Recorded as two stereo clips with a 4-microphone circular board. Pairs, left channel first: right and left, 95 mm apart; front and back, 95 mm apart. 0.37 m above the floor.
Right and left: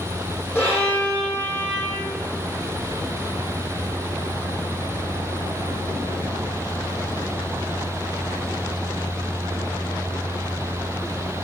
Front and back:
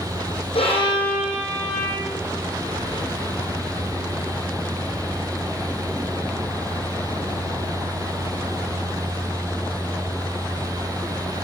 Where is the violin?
20° right, 6.5 m.